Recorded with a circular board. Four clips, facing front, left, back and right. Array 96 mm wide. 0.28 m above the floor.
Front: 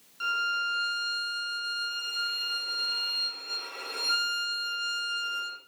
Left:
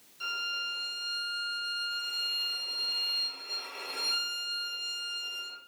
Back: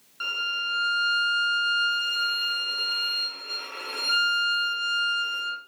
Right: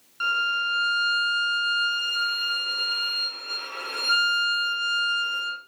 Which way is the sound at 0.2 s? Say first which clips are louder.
Right 13 dB, front 3 dB; 110° right.